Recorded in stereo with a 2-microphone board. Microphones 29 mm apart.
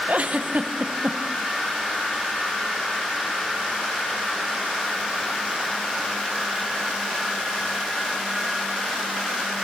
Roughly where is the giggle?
Right.